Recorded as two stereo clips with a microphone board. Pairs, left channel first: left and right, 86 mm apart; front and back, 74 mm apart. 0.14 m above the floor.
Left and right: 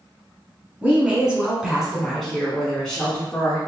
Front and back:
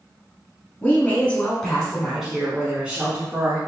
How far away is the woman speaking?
About 1.5 m.